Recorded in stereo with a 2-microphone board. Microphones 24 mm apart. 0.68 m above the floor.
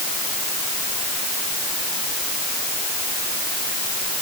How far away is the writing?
No writing in this recording.